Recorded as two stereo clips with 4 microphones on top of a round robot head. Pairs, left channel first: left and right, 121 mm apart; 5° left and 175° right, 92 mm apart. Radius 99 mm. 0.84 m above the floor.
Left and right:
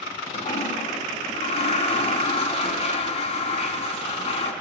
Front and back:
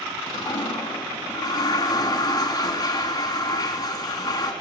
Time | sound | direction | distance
0.3 | a toilet flushing | 55° left | 4 m